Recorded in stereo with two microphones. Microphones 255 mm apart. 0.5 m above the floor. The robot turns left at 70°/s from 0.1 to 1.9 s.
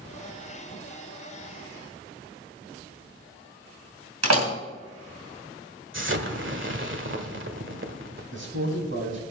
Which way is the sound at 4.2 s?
75° right (ahead or behind).